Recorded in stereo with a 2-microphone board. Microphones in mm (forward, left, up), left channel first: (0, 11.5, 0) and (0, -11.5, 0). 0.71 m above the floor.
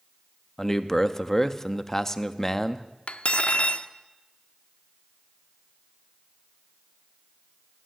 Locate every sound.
0.6 s a man speaking: 15° left (ahead or behind), 0.6 m
3.1 s cutlery clinking: 70° left (ahead or behind), 0.5 m